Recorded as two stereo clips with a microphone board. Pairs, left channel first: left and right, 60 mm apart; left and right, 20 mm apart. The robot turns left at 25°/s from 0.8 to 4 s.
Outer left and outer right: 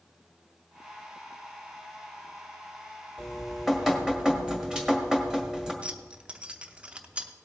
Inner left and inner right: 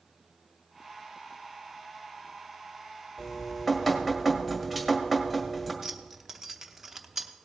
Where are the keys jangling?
20° right (ahead or behind), 0.7 m.